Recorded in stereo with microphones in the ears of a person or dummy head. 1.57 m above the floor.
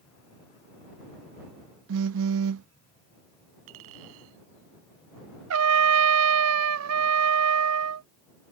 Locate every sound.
1.9 s a phone buzzing: 65° right (ahead or behind)
3.7 s a clink: 80° right
5.5 s a trumpet: 80° right